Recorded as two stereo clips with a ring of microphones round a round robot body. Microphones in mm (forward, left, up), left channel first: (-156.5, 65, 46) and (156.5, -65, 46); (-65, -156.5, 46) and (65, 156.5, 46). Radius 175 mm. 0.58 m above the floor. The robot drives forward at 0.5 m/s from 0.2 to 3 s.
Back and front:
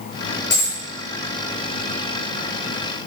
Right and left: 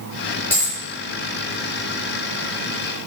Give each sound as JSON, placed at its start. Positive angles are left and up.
{"t": 0.5, "sound": "a dropped coin", "azimuth_deg": 160, "distance_m": 5.0}